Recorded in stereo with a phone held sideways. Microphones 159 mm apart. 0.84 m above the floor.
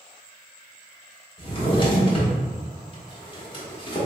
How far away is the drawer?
About 0.8 m.